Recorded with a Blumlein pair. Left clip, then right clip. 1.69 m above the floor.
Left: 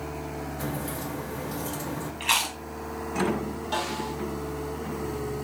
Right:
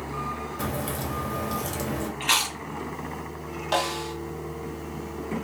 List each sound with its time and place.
0.6 s a crack: 65° right, 1.2 m
2.2 s chewing: 5° right, 0.9 m
3.7 s a snare drum: 30° right, 0.9 m